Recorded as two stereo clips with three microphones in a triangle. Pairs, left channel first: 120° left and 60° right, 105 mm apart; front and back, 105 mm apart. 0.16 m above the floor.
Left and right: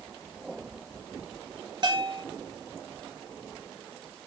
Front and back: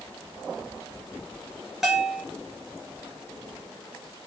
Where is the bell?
90° right, 3 m.